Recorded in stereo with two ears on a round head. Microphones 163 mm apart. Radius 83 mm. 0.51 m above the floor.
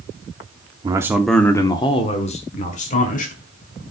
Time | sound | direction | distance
0.8 | a man speaking | 25° right (ahead or behind) | 0.7 m